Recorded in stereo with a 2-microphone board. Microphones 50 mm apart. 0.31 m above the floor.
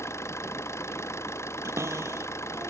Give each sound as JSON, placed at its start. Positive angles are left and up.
{"t": 0.0, "sound": "an engine running", "side_deg": 70}
{"t": 1.6, "sound": "a cupboard door", "side_deg": -80}